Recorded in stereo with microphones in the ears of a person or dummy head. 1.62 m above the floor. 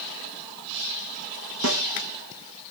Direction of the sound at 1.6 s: 80° right.